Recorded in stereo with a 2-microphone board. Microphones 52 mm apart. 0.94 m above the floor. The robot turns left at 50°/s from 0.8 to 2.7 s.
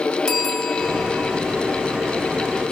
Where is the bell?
170° left, 3 m; by 1.4 s 140° left, 3 m.